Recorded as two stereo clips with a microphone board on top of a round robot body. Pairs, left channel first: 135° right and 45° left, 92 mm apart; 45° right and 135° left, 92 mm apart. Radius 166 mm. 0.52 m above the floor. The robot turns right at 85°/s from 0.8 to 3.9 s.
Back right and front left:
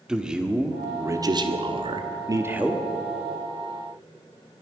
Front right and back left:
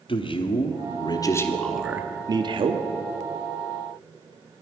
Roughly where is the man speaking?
Ahead right.